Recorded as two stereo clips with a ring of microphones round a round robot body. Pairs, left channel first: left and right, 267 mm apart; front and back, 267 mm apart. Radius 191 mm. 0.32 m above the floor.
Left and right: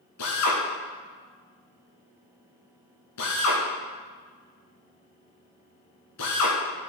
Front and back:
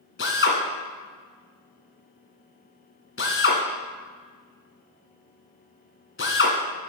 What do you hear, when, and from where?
0.2 s a drill: 45° left, 1.5 m